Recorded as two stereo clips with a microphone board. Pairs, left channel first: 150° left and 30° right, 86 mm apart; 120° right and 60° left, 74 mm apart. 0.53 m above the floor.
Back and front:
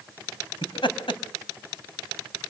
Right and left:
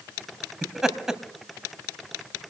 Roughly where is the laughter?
Behind left.